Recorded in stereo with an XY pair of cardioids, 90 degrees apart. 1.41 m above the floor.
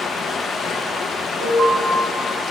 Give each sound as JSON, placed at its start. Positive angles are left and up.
{"t": 0.0, "sound": "running water", "azimuth_deg": 65, "distance_m": 1.2}
{"t": 1.4, "sound": "an alarm", "azimuth_deg": -65, "distance_m": 5.0}